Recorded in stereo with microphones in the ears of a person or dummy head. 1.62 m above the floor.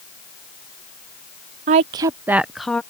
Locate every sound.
1.7 s a woman speaking: 40° right (ahead or behind); by 2.8 s centre (ahead or behind)